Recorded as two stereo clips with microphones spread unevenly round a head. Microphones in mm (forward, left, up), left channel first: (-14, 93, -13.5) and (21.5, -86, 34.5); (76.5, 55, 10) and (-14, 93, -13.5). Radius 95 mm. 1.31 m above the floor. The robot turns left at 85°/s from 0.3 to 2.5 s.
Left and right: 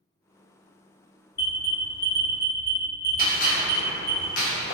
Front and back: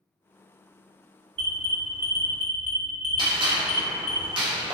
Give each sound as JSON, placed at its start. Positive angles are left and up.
{"t": 1.4, "sound": "an alarm", "azimuth_deg": 165, "distance_m": 1.7}
{"t": 3.2, "sound": "a gunshot", "azimuth_deg": 140, "distance_m": 1.0}